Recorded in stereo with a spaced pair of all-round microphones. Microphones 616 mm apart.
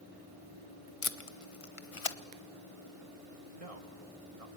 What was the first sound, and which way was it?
Tape being pulled, 55° left (ahead or behind).